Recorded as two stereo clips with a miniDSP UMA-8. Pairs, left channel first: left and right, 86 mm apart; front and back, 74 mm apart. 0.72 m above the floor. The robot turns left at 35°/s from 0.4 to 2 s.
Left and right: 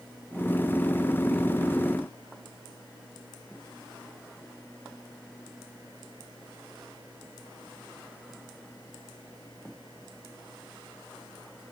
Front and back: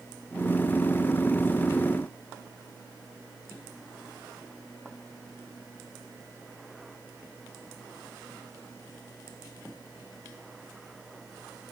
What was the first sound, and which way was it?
Only background noise.